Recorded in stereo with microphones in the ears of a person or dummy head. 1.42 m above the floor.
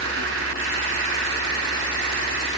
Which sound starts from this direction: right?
An insect, at 0.0 s.